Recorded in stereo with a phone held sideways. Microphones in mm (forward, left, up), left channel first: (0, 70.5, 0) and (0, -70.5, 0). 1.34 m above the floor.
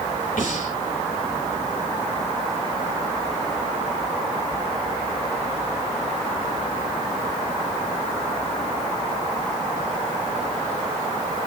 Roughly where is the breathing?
Left.